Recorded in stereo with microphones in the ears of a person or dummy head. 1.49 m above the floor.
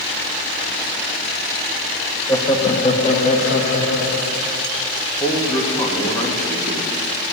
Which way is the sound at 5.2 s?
25° left (ahead or behind).